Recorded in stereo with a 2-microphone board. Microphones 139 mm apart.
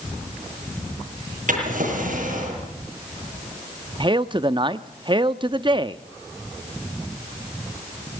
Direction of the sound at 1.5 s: 70° right (ahead or behind).